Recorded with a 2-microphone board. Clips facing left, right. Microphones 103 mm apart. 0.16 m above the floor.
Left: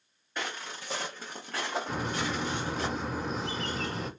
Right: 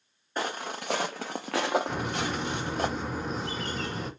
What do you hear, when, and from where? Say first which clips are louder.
0.4 s footsteps: right 5 dB; 35° right (ahead or behind), 0.5 m; by 2.9 s 50° right (ahead or behind), 1.2 m
1.9 s a bird: right 1 dB; centre (ahead or behind), 1.3 m